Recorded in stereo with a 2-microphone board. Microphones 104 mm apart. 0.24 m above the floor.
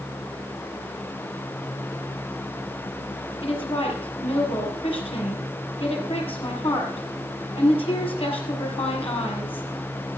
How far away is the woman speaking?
About 5 m.